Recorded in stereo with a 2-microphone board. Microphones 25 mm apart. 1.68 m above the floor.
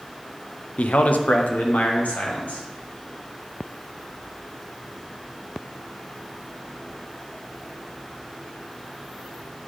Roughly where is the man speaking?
Left.